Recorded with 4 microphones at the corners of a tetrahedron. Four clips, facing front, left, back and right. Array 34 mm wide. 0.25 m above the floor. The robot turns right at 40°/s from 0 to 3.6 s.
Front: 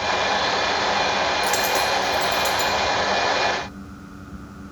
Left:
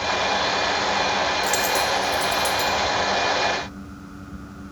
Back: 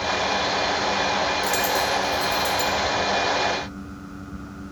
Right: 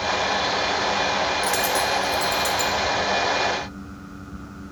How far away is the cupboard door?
No cupboard door in this recording.